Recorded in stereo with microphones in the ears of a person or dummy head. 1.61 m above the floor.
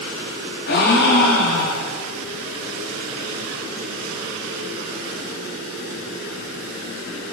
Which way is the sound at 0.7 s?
70° left (ahead or behind).